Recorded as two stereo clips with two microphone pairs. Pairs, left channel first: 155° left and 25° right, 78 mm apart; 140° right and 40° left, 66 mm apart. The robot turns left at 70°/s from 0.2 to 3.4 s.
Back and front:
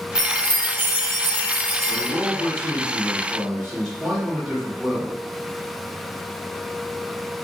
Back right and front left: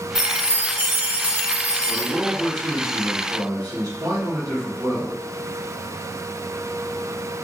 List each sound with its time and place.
0.1 s a chime: 45° right, 0.9 m; by 2.1 s straight behind, 0.9 m
1.9 s a man speaking: 175° left, 1.4 m; by 5.2 s 65° left, 1.4 m